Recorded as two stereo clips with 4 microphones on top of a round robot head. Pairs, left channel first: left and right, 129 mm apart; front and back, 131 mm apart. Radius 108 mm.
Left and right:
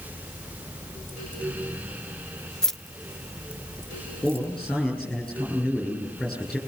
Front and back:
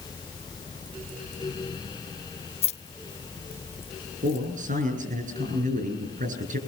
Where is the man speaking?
170° left, 8.5 m.